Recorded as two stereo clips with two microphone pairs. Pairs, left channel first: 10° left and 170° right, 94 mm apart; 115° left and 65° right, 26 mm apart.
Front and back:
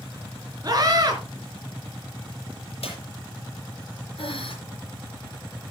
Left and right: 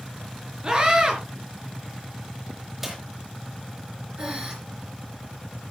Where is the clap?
20° left, 6.5 m.